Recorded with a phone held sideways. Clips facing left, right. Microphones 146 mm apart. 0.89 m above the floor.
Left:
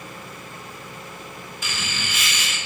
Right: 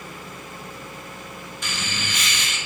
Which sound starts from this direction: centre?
Laughter, at 1.6 s.